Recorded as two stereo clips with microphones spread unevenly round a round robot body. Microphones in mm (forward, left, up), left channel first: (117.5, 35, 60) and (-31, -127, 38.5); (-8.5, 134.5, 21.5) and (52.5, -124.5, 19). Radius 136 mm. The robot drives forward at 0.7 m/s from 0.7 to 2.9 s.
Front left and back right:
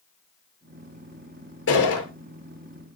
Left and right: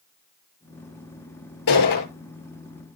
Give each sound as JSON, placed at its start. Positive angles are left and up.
{"t": 1.7, "sound": "a gunshot", "azimuth_deg": 95, "distance_m": 7.0}